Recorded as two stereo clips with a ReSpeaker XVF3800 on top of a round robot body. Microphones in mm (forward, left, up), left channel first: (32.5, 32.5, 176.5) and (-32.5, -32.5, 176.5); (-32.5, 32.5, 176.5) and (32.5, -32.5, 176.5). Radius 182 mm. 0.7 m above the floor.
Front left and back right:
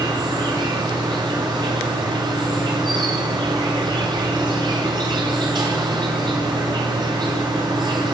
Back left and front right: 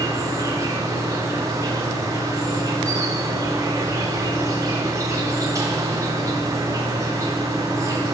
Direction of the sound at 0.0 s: 100° right.